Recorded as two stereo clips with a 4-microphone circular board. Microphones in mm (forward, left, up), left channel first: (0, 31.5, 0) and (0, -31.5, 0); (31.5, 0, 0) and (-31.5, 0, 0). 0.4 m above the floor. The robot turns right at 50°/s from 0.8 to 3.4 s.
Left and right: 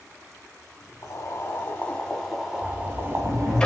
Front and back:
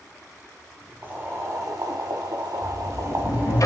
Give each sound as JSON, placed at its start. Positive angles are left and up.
{"t": 1.0, "sound": "boiling", "azimuth_deg": 115, "distance_m": 1.5}
{"t": 2.6, "sound": "a sliding door", "azimuth_deg": -20, "distance_m": 0.7}